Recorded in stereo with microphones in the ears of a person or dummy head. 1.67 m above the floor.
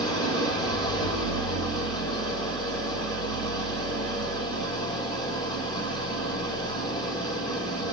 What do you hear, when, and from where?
0.0 s an engine running: 20° left (ahead or behind), 3.5 m